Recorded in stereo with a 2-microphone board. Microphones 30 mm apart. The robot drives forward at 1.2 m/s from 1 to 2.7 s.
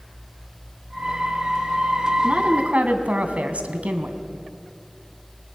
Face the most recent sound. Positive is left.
turn(degrees=-55)  # may be behind; listen again after turning